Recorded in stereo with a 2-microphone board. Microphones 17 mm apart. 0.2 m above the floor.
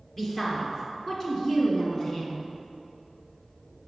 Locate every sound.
0.2 s a woman speaking: 30° left (ahead or behind), 3 m; by 2.4 s 40° left (ahead or behind), 1.9 m